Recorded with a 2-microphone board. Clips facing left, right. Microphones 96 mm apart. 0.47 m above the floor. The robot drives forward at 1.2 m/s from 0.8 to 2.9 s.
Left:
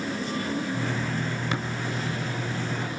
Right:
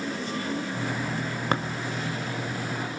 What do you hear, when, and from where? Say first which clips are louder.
1.5 s tapping: right 6 dB; 50° right (ahead or behind), 1.8 m; by 1.6 s 45° right (ahead or behind), 1.9 m